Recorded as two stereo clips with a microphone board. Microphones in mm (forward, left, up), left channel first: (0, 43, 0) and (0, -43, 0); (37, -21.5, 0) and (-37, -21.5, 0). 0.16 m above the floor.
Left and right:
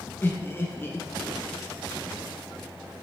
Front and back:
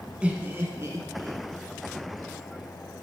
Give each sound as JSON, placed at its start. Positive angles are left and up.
{"t": 0.2, "sound": "laughter", "azimuth_deg": 125, "distance_m": 1.1}